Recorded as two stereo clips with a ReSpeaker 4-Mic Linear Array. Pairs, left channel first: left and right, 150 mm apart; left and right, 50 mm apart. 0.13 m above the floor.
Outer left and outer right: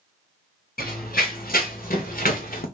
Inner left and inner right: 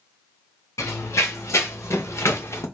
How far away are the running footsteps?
About 2.5 m.